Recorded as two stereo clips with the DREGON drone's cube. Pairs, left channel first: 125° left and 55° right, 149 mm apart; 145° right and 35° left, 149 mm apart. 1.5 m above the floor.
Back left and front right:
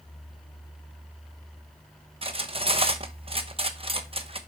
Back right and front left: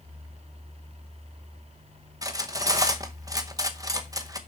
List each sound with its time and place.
2.2 s cutlery clinking: 25° right, 0.9 m